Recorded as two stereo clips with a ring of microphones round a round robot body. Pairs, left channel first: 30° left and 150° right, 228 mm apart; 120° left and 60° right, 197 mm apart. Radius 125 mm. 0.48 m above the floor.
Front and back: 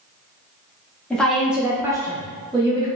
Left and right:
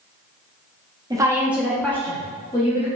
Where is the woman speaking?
45° right, 0.9 m; by 2.9 s 160° left, 1.1 m.